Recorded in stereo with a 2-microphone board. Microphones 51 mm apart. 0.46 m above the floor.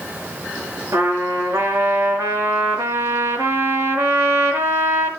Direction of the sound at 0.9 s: 80° right.